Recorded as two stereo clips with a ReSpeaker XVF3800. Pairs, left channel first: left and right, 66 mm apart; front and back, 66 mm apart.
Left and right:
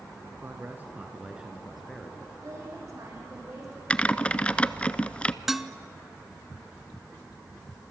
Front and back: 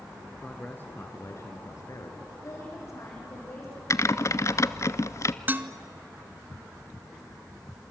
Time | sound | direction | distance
0.4 | a man speaking | 60° right | 1.8 m
2.4 | a woman speaking | 45° right | 7 m
3.9 | typing on a keyboard | 20° left | 0.6 m
5.5 | dishes clattering | 170° right | 0.8 m